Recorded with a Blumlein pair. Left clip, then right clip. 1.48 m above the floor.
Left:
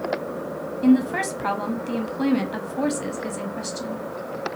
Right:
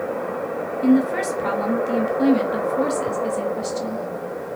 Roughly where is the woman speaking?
Ahead.